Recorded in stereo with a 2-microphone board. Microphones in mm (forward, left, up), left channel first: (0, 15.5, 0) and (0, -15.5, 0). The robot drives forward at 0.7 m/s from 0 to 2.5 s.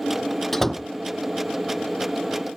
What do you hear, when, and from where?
0.5 s a door slam: 5° left (ahead or behind)